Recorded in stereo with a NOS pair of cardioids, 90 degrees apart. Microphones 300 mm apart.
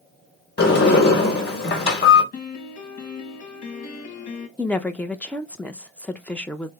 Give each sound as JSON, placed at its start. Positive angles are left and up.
{"t": 0.6, "sound": "a sliding door", "azimuth_deg": 35, "distance_m": 1.4}
{"t": 2.3, "sound": "a piano", "azimuth_deg": 65, "distance_m": 1.2}
{"t": 4.6, "sound": "a woman speaking", "azimuth_deg": 5, "distance_m": 0.5}